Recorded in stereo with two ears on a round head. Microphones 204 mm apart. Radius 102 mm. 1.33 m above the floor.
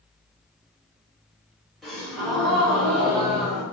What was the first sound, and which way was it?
A gasp, centre (ahead or behind).